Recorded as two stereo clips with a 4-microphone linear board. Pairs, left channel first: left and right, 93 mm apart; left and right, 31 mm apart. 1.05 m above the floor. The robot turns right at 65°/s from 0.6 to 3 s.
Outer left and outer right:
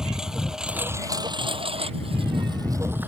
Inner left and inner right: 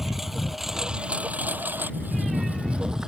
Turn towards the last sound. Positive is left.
turn(degrees=-20)  # may be behind; listen again after turning